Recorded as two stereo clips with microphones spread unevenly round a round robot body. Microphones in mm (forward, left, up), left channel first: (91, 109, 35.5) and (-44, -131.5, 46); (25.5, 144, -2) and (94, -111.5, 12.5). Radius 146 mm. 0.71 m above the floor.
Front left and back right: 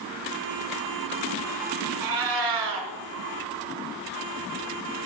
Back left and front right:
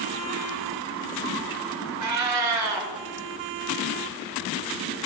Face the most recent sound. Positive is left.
turn(degrees=-110)